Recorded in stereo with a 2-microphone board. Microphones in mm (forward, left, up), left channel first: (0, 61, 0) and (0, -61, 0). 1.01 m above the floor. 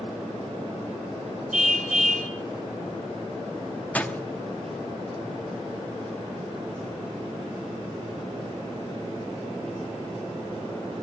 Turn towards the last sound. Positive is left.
turn(degrees=10)  # may be behind; listen again after turning